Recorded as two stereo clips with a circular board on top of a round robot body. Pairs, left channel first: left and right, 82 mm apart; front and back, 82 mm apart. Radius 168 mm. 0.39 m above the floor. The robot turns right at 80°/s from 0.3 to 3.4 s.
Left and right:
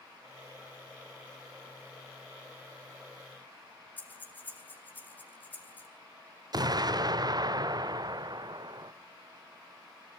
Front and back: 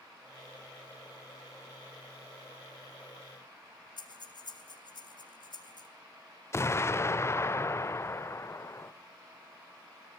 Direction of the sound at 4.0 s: 20° left.